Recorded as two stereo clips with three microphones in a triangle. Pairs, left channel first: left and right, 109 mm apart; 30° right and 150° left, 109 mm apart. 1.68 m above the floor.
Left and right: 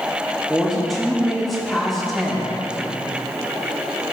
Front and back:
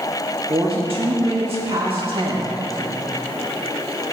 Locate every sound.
0.5 s a woman speaking: straight behind, 2 m